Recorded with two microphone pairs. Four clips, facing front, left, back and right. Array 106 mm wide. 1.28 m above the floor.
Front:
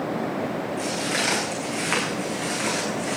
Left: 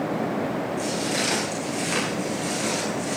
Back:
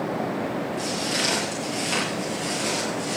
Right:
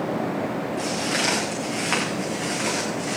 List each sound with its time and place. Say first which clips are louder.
0.8 s footsteps: even, front 1 dB; 55° right, 7.5 m; by 3.2 s 50° right, 6 m